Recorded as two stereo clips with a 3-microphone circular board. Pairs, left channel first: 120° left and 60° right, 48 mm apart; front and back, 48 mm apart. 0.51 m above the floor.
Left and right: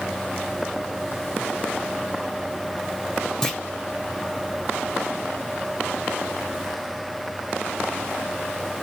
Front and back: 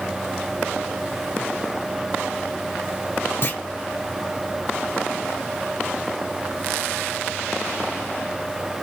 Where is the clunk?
40° left, 1.0 m.